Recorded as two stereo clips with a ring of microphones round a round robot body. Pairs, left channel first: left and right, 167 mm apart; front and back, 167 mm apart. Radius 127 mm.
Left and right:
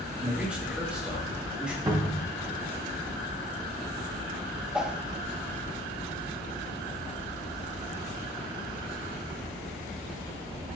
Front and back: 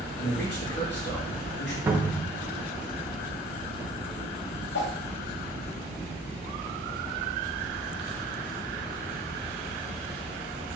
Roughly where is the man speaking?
Ahead.